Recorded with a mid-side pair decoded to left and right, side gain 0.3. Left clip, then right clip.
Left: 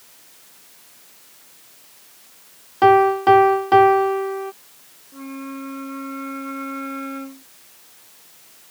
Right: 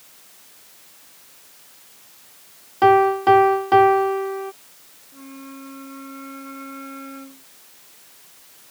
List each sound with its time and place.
2.8 s a piano: 15° left
5.1 s a flute: 60° left